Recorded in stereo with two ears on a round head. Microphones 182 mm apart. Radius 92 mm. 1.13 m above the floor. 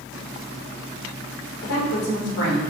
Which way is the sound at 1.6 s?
75° left (ahead or behind).